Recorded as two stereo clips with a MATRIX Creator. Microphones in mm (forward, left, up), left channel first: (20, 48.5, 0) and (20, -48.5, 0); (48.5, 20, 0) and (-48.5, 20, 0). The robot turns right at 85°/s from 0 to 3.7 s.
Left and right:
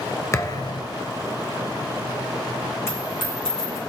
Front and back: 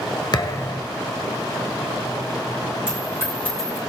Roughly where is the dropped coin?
Ahead left.